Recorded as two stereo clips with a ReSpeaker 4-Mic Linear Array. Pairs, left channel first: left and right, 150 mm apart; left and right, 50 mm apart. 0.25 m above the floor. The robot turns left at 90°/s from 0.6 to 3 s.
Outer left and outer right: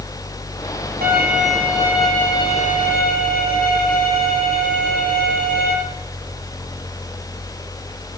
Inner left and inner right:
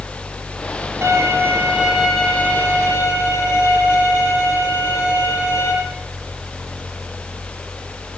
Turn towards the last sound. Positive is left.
turn(degrees=95)